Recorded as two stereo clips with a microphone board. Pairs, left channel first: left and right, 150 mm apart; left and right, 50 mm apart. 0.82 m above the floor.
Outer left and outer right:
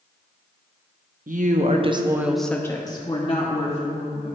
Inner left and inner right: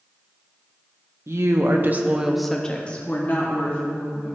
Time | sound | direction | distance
1.3 | a woman speaking | 65° right (ahead or behind) | 1.0 m